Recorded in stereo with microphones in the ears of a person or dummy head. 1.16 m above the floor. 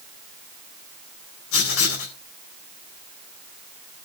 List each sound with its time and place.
1.5 s writing: 80° left, 3 m